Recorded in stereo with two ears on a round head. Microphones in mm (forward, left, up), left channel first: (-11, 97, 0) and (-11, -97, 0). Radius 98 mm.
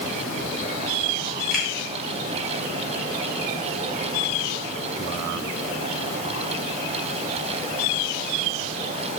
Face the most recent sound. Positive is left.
turn(degrees=0)  # may be behind; listen again after turning